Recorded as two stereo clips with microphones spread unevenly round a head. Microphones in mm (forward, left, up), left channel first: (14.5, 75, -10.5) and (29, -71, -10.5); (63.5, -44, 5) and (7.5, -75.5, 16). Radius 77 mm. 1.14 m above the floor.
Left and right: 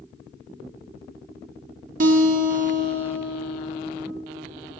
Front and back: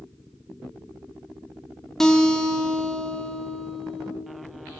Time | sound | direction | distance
2.0 | a guitar | 55° right | 1.4 m